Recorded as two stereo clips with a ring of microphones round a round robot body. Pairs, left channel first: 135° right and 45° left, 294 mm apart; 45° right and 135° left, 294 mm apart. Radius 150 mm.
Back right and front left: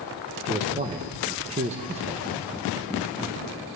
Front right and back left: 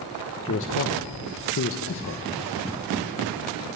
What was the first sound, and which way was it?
A man speaking, 15° right.